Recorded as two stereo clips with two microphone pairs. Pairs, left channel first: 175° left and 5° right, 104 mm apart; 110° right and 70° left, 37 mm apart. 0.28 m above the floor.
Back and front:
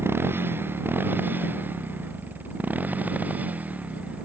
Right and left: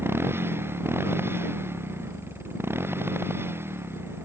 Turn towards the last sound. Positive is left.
turn(degrees=65)